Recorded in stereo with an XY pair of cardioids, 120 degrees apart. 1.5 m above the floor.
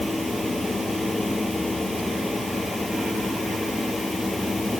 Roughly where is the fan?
Ahead.